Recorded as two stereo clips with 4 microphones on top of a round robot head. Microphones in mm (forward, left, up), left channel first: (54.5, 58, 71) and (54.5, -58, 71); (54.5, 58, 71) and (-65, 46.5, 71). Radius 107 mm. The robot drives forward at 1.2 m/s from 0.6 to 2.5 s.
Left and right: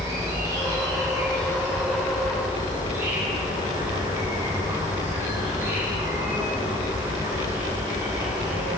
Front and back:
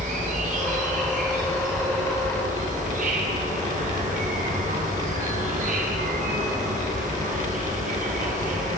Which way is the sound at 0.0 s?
155° right.